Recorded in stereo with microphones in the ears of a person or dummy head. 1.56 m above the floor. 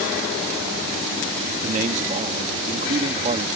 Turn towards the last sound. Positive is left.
turn(degrees=-40)  # may be behind; listen again after turning